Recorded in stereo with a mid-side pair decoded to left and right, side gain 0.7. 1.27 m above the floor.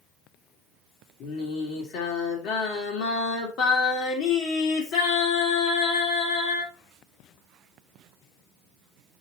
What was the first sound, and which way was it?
Singing, 60° left.